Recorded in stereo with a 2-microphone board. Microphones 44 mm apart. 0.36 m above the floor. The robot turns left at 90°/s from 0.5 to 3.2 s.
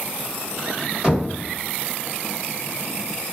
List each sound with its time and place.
1.0 s knocking: 15° right (ahead or behind), 1.4 m; by 1.3 s centre (ahead or behind), 1.4 m